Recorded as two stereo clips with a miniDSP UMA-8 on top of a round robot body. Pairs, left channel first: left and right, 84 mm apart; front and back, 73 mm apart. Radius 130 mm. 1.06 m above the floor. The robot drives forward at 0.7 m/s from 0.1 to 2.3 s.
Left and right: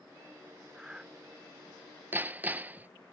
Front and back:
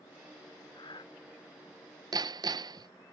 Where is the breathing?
5° right.